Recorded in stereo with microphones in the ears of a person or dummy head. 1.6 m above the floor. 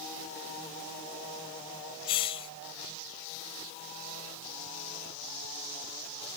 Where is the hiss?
35° left (ahead or behind).